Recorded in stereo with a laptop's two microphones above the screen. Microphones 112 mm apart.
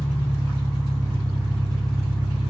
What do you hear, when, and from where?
0.0 s an engine running: 30° right (ahead or behind), 0.8 m